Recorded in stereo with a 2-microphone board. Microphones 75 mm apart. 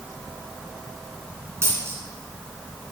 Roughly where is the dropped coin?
Right.